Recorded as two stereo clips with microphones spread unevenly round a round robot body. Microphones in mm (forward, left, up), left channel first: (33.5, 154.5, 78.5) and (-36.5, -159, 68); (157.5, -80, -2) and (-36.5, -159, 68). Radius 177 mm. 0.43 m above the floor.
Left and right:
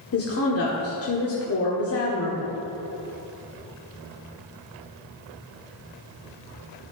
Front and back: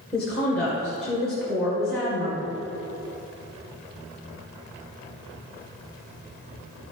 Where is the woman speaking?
85° left, 1.7 m.